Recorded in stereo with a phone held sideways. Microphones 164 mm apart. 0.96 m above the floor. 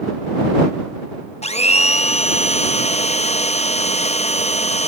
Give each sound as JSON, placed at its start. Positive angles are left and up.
{"t": 1.4, "sound": "a blender", "side_deg": 40}